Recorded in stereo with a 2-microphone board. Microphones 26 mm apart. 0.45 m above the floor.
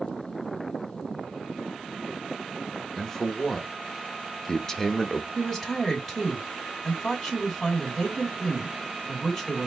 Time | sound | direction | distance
3.0 | a man speaking | 15° left (ahead or behind) | 0.7 m
5.3 | a woman speaking | 10° left (ahead or behind) | 2.5 m